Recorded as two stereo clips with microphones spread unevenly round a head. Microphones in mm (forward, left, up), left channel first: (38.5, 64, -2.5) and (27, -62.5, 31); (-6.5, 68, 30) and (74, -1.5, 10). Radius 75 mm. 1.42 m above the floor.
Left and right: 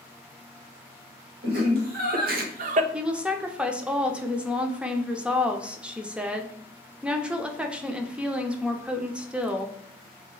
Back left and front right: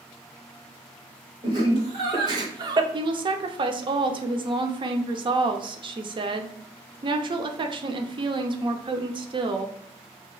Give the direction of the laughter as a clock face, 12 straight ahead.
3 o'clock.